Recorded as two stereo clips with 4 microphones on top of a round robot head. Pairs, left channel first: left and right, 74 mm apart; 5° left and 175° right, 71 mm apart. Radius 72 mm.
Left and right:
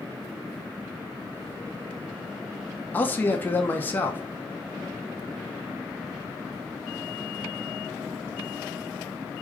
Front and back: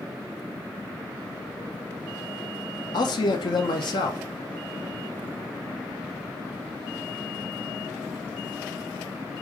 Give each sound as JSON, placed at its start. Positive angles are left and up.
{"t": 2.9, "sound": "a man speaking", "azimuth_deg": 25, "distance_m": 1.0}